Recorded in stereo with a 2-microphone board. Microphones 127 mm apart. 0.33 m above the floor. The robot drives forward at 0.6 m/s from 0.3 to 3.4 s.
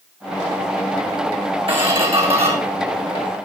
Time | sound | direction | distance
1.7 | a squeak | 45° right (ahead or behind) | 2 m